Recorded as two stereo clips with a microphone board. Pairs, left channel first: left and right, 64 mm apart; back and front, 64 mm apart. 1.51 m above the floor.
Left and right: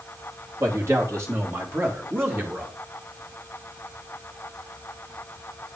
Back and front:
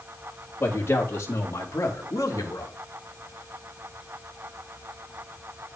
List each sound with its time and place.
0.6 s a man speaking: 130° right, 3 m; by 2.8 s 150° right, 2.5 m